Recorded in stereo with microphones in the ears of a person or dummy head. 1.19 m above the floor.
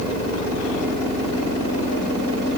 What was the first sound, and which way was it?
Only background noise.